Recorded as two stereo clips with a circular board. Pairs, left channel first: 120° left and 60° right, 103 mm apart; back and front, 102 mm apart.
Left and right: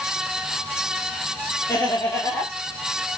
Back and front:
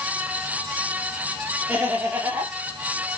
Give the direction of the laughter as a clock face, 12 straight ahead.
10 o'clock.